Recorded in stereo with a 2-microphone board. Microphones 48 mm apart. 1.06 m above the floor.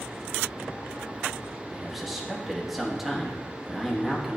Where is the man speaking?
5° right (ahead or behind), 1.9 m.